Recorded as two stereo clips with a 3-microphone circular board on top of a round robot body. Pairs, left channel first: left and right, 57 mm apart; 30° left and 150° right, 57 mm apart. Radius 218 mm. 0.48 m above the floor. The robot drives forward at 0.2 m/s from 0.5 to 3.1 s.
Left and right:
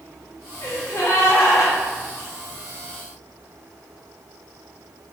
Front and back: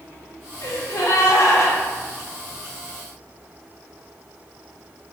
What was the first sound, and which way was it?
A gasp, 55° left.